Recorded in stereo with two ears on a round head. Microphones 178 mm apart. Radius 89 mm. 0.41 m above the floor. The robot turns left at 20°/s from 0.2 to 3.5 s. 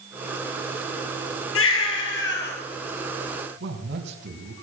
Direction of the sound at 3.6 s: 60° right (ahead or behind).